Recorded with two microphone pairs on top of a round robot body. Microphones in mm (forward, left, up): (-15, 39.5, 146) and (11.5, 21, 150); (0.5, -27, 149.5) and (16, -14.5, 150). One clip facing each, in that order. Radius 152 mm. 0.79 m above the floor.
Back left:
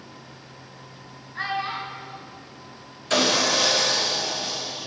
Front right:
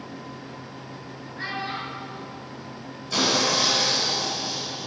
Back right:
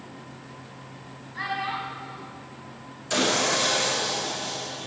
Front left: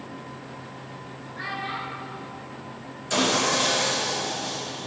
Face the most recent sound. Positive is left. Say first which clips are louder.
# back left 2 dB, front left 1 dB
turn(degrees=140)